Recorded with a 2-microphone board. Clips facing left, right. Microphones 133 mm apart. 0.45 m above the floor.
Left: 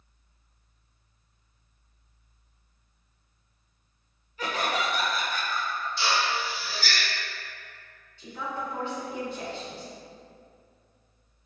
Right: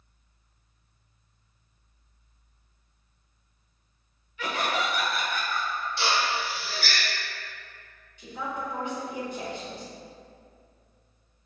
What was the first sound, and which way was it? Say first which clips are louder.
Laughter: even; 40° left (ahead or behind).